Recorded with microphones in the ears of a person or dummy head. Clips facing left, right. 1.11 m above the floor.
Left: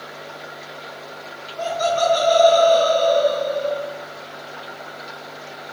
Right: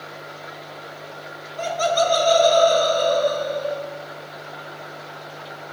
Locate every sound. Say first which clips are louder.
1.6 s laughter: left 1 dB; 40° right (ahead or behind), 1.5 m; by 3.8 s 80° right, 3.5 m